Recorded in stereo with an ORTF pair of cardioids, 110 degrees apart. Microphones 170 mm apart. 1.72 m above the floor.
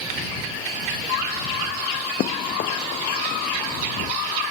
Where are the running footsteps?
55° left.